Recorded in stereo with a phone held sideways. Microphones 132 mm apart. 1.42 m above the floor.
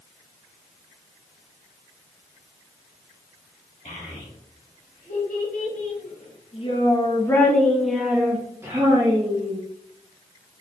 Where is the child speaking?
80° left, 2 m; by 9.6 s 35° right (ahead or behind), 1.5 m.